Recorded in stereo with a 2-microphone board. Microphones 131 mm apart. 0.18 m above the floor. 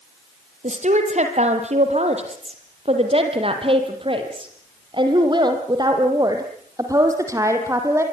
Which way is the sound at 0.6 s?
60° right (ahead or behind).